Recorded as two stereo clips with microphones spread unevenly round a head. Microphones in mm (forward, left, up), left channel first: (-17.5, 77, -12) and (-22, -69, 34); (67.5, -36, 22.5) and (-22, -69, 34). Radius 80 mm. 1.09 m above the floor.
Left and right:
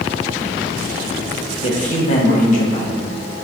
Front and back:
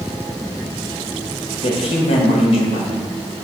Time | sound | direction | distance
1.6 | a man speaking | 50° left | 1.1 m